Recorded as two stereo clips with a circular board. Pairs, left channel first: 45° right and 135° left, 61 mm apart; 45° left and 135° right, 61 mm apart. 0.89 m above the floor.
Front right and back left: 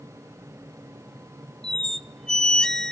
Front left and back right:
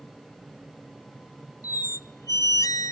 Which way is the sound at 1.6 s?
35° left.